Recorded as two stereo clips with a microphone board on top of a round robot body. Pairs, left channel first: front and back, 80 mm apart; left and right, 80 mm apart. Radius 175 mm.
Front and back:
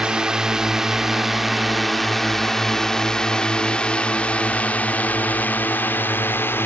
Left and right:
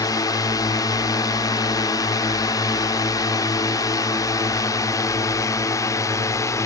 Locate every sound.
0.0 s a drone: 105° left; by 6.7 s 55° left